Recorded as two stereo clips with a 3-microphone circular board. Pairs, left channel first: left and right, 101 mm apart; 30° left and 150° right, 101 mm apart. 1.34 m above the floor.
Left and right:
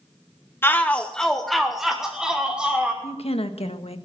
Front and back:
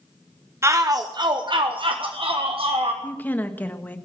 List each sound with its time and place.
0.6 s a shout: 155° left, 0.6 m; by 2.9 s 170° right, 1.8 m
3.0 s a woman speaking: 100° left, 1.4 m